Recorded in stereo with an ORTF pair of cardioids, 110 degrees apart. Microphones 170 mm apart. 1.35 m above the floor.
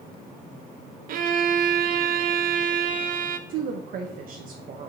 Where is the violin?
60° right, 0.8 m.